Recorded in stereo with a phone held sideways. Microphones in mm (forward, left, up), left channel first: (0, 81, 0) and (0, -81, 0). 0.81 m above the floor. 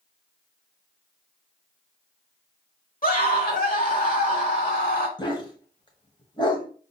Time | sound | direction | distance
3.0 | a scream | 60° left (ahead or behind) | 1.7 m
5.2 | a dog barking | 30° left (ahead or behind) | 0.9 m